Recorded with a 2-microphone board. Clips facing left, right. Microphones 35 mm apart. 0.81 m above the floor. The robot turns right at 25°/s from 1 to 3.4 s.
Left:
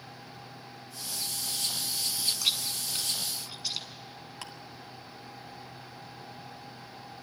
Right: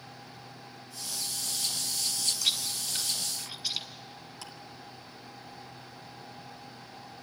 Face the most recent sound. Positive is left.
turn(degrees=55)  # may be behind; listen again after turning